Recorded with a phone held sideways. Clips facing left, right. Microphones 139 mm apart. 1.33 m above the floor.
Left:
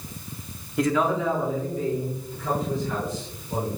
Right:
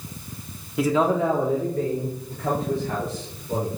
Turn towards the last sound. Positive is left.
turn(degrees=-70)  # may be behind; listen again after turning